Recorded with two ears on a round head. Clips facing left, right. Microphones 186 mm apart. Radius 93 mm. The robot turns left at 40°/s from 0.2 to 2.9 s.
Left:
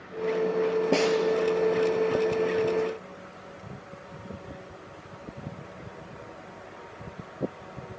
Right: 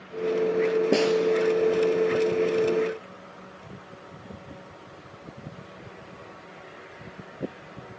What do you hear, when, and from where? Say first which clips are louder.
0.9 s a snare drum: right 1 dB; 15° right (ahead or behind), 2 m; by 1.2 s 5° right (ahead or behind), 2 m